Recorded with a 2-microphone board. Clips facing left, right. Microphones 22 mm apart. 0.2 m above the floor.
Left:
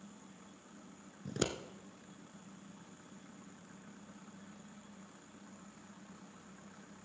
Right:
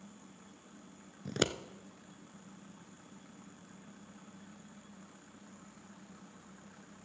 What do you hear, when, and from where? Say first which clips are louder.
1.2 s scissors: right 4 dB; 45° right (ahead or behind), 0.7 m